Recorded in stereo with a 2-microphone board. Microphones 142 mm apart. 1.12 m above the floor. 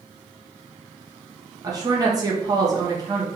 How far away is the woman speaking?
About 1.0 m.